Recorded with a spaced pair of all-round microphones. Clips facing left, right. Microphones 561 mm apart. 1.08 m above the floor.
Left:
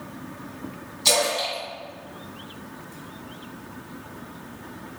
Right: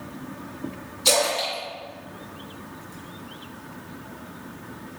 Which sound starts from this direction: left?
A splash, at 1.1 s.